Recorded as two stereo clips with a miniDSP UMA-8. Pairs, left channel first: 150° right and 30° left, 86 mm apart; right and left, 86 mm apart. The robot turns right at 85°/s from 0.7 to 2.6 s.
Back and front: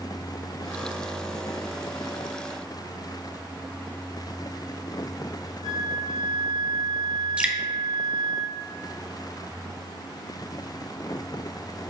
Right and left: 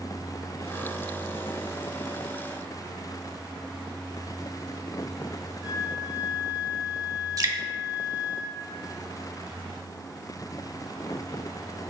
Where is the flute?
20° left, 3 m.